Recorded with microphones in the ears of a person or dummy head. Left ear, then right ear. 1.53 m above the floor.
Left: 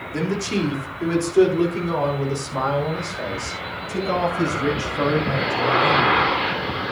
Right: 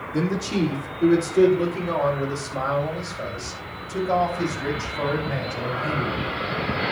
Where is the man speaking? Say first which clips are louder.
Left 1 dB; 65° left (ahead or behind), 3 m; by 6.2 s 60° left (ahead or behind), 8.5 m.